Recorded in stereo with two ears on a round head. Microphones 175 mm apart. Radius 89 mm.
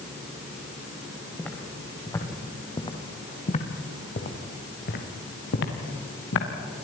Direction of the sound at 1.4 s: 5° left (ahead or behind).